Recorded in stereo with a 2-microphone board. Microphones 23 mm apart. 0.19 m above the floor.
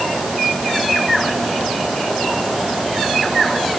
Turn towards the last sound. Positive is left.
No sound to turn to.